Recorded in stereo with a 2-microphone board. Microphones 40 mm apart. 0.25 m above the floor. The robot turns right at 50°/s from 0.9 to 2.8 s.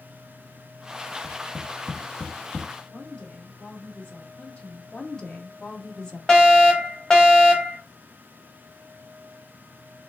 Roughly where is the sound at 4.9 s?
Centre.